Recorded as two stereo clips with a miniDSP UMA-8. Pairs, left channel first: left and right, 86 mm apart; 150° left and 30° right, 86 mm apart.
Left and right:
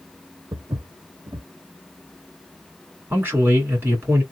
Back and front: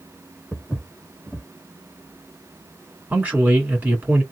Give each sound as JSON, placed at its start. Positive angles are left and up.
{"t": 0.5, "sound": "footsteps", "azimuth_deg": -120, "distance_m": 0.6}
{"t": 3.1, "sound": "a man speaking", "azimuth_deg": -70, "distance_m": 1.5}